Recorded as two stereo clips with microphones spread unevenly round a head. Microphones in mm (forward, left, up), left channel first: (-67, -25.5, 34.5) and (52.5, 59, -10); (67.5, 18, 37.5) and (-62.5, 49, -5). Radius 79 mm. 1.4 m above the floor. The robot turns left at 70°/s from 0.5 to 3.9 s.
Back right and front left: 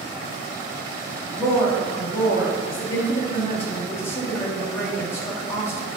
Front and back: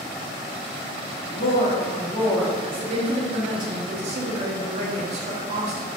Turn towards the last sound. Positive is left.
turn(degrees=135)